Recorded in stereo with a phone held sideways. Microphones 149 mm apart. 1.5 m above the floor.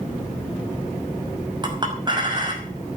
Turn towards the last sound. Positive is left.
turn(degrees=-30)  # may be behind; listen again after turning